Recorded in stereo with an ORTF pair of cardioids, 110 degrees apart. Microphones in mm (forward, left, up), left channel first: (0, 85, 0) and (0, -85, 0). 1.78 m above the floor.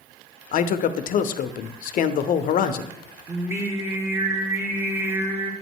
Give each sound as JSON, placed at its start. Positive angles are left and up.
{"t": 0.5, "sound": "a man speaking", "azimuth_deg": 55, "distance_m": 0.6}
{"t": 3.3, "sound": "singing", "azimuth_deg": -15, "distance_m": 1.3}